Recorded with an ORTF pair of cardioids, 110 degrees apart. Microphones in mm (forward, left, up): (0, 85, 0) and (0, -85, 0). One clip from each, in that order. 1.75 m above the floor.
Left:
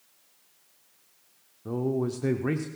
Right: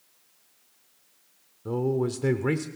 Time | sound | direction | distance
1.6 | a man speaking | 10° right | 0.7 m